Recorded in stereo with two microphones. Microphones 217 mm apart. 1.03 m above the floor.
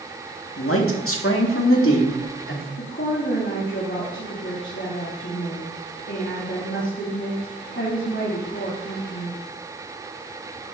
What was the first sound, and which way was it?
A man speaking, 80° left.